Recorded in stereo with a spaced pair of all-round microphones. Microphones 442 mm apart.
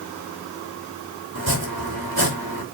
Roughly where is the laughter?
I don't hear laughter.